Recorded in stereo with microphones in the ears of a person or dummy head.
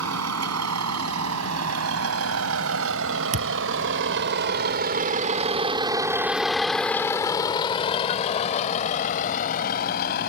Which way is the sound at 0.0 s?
90° right.